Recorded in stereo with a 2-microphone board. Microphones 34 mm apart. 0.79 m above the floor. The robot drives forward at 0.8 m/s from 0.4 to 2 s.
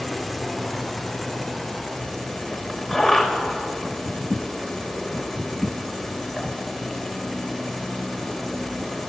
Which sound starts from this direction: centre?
An insect, at 0.0 s.